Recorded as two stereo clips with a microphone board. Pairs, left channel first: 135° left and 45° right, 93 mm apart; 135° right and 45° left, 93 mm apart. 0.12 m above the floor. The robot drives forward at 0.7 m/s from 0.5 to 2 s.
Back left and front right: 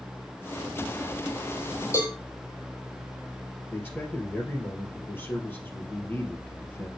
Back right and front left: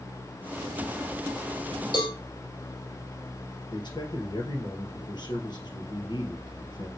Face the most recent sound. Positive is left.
turn(degrees=-160)